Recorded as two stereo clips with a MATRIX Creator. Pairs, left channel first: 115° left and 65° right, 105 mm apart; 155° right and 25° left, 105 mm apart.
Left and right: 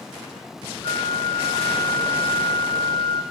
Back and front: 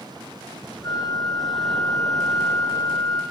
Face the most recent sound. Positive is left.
turn(degrees=150)